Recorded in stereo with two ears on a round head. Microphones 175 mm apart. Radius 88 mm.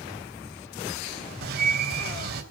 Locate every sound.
1.4 s a bird: 55° right (ahead or behind), 3.5 m